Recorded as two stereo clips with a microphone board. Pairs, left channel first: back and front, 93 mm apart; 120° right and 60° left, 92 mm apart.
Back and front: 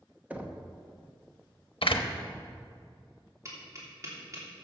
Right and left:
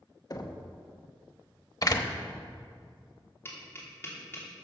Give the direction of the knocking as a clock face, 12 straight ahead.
2 o'clock.